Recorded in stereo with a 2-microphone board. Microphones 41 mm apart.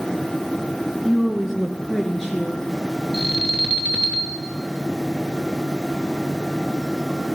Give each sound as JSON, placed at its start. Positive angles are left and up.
{"t": 1.1, "sound": "a woman speaking", "side_deg": -10, "distance_m": 1.3}
{"t": 3.1, "sound": "an alarm", "side_deg": -20, "distance_m": 3.0}